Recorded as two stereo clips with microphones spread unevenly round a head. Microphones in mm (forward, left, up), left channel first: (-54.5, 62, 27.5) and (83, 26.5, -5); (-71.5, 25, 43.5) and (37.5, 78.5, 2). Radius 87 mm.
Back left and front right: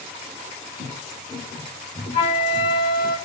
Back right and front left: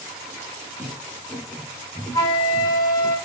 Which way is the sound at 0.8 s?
110° left.